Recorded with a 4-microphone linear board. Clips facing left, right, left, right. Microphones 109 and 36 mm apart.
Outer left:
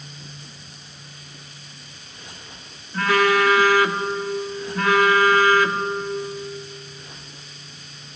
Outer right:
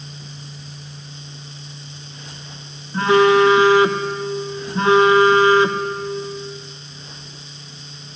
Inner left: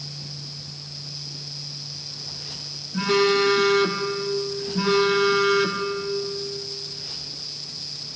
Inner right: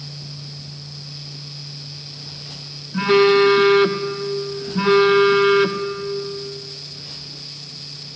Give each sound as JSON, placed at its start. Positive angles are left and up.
{"t": 2.9, "sound": "a phone buzzing", "side_deg": -25, "distance_m": 1.4}